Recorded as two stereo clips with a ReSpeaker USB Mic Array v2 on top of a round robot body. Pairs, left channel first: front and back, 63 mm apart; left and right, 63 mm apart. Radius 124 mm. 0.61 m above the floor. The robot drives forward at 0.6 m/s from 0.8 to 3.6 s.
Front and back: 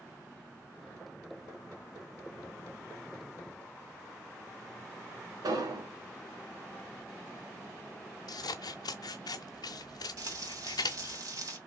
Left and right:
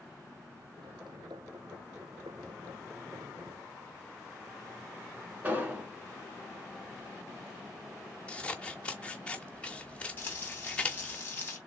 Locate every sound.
5.4 s an explosion: 155° right, 1.7 m
8.3 s scissors: 15° left, 0.6 m
10.2 s frying: 150° left, 2.5 m